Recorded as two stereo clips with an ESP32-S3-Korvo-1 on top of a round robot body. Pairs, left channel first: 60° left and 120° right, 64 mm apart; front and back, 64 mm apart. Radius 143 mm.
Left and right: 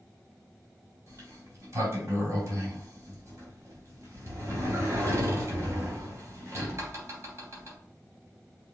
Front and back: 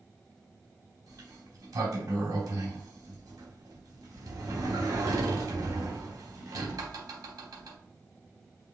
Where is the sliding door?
165° right, 2 m.